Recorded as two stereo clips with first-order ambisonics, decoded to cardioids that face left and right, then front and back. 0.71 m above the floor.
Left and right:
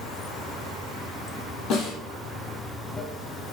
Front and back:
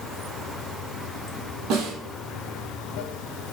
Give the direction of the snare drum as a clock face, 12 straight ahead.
7 o'clock.